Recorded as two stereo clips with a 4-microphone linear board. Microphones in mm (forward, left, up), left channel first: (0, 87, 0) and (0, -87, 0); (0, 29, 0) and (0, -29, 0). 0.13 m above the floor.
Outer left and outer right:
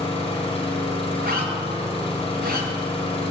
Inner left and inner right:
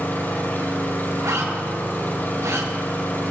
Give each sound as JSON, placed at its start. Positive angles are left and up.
{"t": 0.0, "sound": "an engine running", "side_deg": 35, "distance_m": 4.0}
{"t": 1.2, "sound": "a zipper", "side_deg": -65, "distance_m": 6.5}